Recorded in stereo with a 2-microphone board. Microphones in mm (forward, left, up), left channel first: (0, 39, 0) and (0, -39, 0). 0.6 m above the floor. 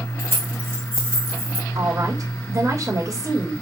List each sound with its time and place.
0.2 s keys jangling: 35° right (ahead or behind), 2 m
1.8 s a woman speaking: 45° right (ahead or behind), 2.5 m